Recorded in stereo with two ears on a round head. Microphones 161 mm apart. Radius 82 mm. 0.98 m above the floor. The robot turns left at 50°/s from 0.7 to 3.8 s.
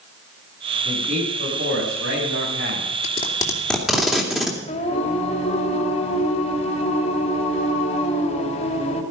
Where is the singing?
35° left (ahead or behind), 2.5 m.